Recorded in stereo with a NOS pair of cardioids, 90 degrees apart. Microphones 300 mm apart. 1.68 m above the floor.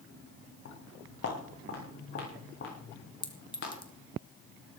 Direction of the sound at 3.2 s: 15° left.